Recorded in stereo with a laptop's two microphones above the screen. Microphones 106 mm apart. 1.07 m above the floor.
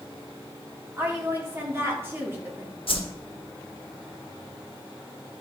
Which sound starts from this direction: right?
A woman speaking, at 1.0 s.